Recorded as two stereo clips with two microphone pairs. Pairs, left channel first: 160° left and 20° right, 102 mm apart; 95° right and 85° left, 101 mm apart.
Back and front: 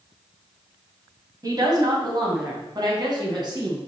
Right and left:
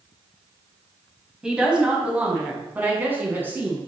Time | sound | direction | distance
1.4 | a woman speaking | straight ahead | 1.5 m